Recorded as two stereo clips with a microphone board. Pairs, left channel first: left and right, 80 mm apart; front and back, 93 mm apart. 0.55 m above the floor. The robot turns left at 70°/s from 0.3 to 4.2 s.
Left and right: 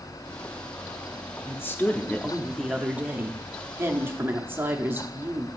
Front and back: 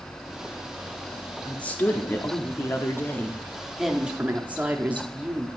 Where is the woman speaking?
75° left, 0.9 m; by 5.5 s 120° right, 0.9 m.